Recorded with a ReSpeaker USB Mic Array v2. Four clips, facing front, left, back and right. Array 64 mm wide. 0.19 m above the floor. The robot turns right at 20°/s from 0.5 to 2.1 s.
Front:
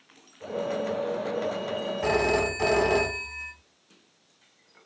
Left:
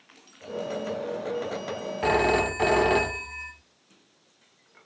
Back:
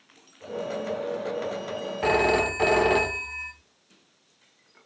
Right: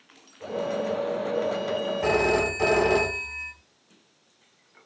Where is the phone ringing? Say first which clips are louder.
Left 1 dB, back 3 dB; 140° left, 1.0 m; by 3.5 s 145° left, 1.0 m.